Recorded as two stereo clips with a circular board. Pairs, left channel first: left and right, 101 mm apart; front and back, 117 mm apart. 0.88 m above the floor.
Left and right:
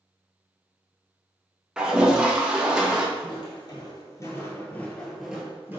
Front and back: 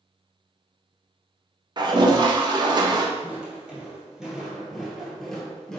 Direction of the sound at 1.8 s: 170° right.